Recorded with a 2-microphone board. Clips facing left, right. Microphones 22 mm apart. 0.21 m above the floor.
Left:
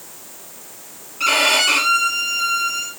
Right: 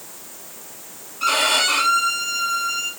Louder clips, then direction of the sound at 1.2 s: Left 3 dB; 70° left (ahead or behind).